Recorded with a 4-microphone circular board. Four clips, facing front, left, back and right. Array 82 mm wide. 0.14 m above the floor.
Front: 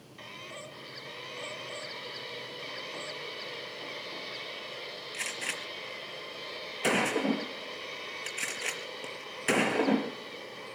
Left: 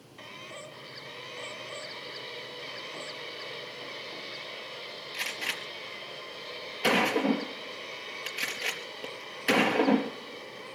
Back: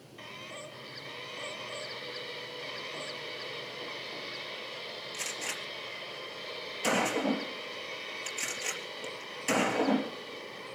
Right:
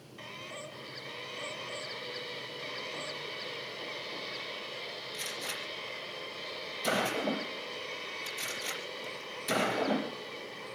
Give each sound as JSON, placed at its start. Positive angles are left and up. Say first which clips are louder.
{"t": 5.1, "sound": "a gunshot", "louder": "left 7 dB, front 3 dB", "azimuth_deg": 60, "distance_m": 3.5}